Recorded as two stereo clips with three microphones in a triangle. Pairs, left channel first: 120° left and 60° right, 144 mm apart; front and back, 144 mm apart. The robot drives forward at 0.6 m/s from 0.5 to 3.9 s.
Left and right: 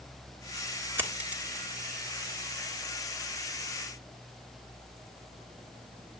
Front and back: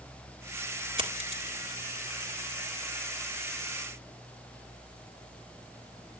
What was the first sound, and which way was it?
A dropped coin, 135° right.